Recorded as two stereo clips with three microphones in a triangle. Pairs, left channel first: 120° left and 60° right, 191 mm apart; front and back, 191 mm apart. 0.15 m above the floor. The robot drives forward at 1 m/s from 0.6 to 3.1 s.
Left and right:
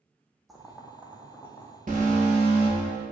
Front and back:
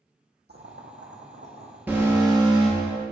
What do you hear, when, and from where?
0.5 s boiling: 150° right, 1.2 m; by 1.8 s 165° right, 2.5 m
1.9 s an alarm: 100° right, 2 m; by 3.0 s 130° right, 2.5 m